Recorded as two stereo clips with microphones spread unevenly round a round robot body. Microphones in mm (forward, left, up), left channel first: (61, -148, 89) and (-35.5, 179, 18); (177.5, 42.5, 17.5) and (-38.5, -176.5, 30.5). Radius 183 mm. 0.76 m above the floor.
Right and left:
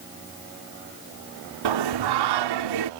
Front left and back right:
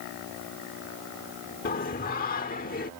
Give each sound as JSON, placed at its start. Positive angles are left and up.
{"t": 1.6, "sound": "singing", "azimuth_deg": 115}